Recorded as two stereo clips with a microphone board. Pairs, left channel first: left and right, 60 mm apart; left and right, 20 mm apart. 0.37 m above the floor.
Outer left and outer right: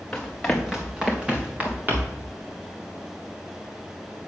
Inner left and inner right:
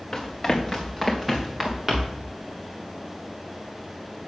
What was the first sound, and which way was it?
Running footsteps, 10° left (ahead or behind).